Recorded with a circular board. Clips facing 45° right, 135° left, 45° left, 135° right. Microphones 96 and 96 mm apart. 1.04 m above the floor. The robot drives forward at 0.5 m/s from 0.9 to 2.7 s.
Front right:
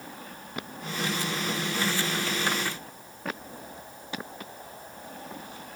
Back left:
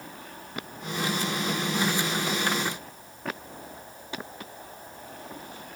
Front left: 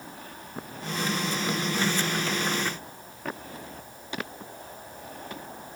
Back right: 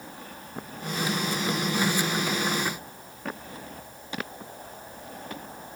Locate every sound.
Only background noise.